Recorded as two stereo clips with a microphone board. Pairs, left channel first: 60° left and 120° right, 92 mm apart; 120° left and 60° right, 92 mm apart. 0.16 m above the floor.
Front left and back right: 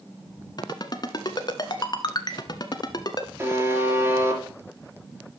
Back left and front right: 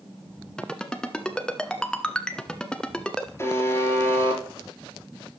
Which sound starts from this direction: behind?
A buzzer, at 3.4 s.